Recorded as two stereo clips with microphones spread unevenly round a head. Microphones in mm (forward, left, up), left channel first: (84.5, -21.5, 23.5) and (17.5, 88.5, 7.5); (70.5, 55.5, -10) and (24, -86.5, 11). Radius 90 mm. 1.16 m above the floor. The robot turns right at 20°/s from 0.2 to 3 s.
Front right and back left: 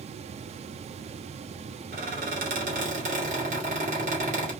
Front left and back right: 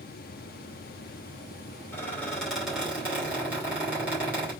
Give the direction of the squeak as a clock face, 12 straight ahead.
7 o'clock.